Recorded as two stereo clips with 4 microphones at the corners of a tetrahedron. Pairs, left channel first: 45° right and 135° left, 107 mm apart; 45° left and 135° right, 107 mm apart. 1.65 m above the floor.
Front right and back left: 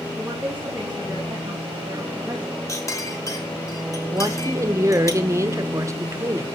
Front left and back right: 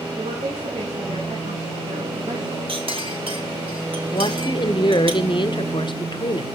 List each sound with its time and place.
0.1 s a woman speaking: 155° right, 3 m
2.7 s a clink: 105° right, 2 m
4.1 s a woman speaking: 75° left, 1.0 m